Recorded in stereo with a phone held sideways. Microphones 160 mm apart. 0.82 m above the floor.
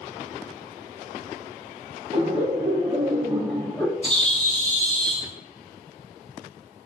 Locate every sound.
2.1 s laughter: 45° right (ahead or behind), 1.1 m; by 3.9 s 15° left (ahead or behind), 0.7 m
4.0 s a bird: 45° left (ahead or behind), 1.1 m